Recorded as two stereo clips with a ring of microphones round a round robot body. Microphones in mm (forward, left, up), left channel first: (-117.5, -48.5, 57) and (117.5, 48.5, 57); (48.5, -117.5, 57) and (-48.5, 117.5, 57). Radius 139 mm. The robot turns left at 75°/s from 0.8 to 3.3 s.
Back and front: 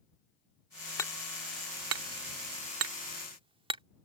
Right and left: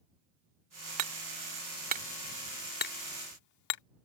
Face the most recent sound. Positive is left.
turn(degrees=-50)